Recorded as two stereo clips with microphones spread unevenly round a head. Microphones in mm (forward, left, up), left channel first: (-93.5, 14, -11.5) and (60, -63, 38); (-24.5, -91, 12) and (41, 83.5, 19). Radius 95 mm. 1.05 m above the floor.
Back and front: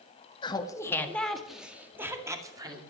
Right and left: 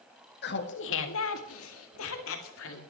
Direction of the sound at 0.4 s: 145° right.